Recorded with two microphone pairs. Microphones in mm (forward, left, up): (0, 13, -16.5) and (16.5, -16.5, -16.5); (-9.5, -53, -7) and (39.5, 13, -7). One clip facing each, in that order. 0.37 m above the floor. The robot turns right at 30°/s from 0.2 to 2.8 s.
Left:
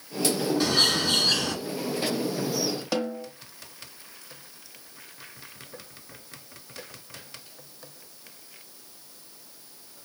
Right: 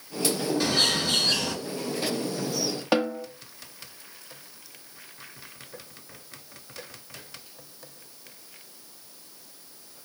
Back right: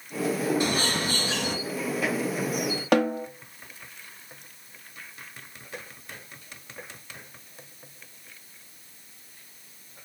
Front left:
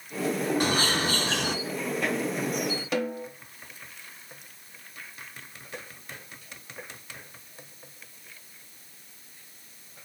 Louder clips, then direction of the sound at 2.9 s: Right 8 dB, back right 9 dB; 115° right.